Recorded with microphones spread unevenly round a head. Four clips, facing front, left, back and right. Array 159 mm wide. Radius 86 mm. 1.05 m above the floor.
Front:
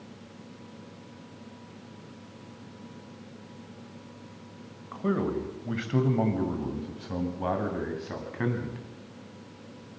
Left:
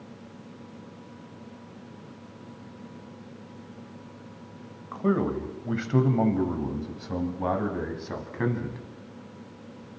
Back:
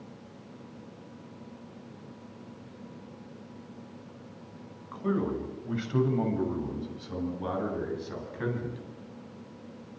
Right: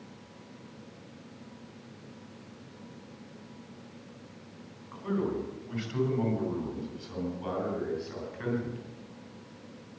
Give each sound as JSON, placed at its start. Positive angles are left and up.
{"t": 4.9, "sound": "a man speaking", "azimuth_deg": 65, "distance_m": 5.5}